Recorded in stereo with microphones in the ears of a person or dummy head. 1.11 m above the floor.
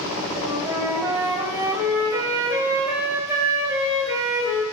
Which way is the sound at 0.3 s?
15° right (ahead or behind).